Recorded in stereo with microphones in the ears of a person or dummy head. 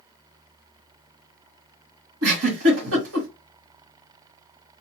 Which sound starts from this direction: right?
A giggle, at 2.2 s.